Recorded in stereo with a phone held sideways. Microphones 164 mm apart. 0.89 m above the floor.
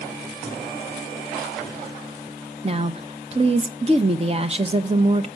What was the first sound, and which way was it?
A woman speaking, 35° right (ahead or behind).